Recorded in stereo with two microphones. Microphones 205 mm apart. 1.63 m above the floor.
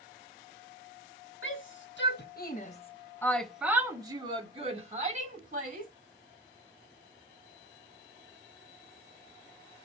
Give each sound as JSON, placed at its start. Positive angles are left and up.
{"t": 1.4, "sound": "a shout", "side_deg": 75, "distance_m": 1.7}